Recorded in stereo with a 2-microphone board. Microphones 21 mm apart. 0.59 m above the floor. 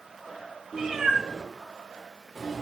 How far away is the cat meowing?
About 1.2 m.